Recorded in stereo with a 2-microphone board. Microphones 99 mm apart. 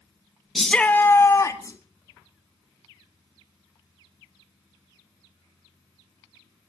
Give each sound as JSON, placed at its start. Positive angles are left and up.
{"t": 0.6, "sound": "a shout", "side_deg": 0, "distance_m": 1.1}